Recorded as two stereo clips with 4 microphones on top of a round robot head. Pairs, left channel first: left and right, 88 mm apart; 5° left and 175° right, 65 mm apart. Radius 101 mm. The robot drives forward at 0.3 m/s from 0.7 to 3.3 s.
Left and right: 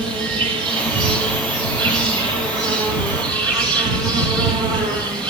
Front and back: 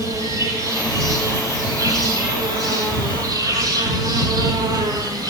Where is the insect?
130° right, 3 m; by 5.3 s 140° right, 3.5 m.